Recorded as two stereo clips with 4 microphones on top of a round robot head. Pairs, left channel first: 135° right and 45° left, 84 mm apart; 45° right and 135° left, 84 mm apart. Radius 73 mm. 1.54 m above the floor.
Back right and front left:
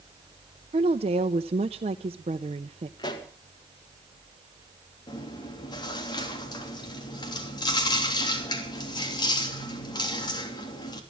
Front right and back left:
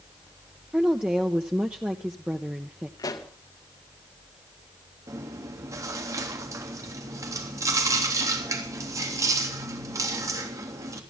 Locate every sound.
0.7 s a woman speaking: 55° left, 0.7 m
3.0 s a pop: 90° right, 2 m
5.1 s chewing: 175° right, 3 m